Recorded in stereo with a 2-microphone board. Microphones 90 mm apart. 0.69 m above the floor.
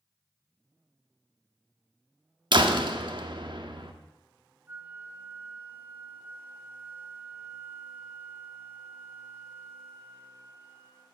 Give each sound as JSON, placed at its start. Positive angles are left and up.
{"t": 2.5, "sound": "a door slam", "side_deg": -60, "distance_m": 1.1}
{"t": 4.7, "sound": "a flute", "side_deg": -25, "distance_m": 1.0}